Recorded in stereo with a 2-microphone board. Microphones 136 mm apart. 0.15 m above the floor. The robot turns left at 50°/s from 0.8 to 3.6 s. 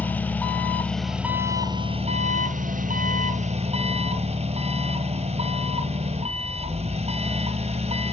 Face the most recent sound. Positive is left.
turn(degrees=-125)